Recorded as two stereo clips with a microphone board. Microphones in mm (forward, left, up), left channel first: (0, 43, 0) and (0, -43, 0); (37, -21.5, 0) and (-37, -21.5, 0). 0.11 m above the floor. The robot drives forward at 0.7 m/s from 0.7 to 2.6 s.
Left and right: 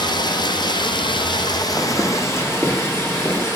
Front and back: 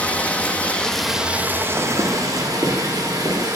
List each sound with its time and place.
0.0 s running water: 70° left, 0.7 m; by 3.6 s 150° left, 1.3 m
1.8 s footsteps: 150° left, 0.6 m; by 3.5 s 160° left, 2.5 m